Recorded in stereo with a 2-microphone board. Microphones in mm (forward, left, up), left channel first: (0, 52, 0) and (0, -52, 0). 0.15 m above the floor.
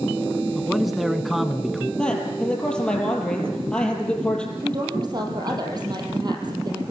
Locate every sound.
0.6 s a man speaking: centre (ahead or behind), 1.0 m
2.0 s a man speaking: 10° left (ahead or behind), 4.5 m
4.6 s a woman speaking: 45° right (ahead or behind), 4.5 m